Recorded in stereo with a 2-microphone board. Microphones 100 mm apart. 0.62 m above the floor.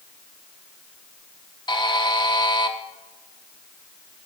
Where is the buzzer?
50° left (ahead or behind), 0.7 m.